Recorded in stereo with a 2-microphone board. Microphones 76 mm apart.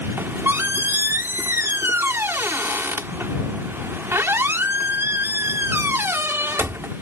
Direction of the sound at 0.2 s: 30° right (ahead or behind).